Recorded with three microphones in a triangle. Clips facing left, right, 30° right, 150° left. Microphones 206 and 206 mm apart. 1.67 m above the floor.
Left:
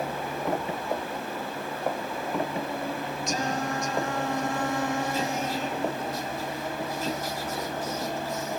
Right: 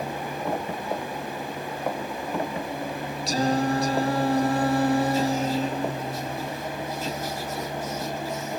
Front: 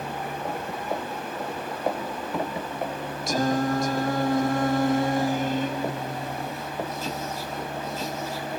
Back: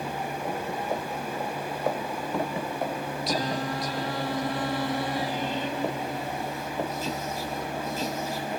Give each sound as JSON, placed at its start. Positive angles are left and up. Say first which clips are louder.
{"t": 3.3, "sound": "singing", "louder": "right 8 dB, front 7 dB", "azimuth_deg": -45}